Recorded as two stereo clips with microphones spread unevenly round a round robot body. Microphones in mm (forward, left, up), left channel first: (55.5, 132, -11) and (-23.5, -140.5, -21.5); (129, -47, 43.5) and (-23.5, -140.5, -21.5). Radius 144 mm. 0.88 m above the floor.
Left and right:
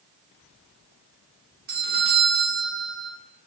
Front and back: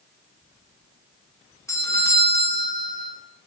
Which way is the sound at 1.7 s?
55° right.